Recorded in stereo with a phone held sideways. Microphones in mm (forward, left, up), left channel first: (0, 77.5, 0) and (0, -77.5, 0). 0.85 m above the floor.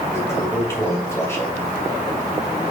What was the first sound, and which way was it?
A toilet flushing, 15° left (ahead or behind).